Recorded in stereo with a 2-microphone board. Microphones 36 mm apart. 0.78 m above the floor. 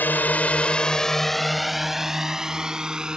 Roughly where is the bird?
I don't hear a bird.